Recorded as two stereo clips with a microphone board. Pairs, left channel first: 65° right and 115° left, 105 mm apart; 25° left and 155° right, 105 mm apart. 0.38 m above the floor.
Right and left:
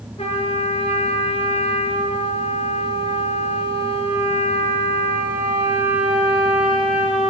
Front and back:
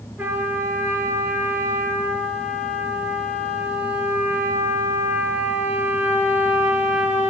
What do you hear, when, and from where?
0.2 s a trumpet: 90° right, 7 m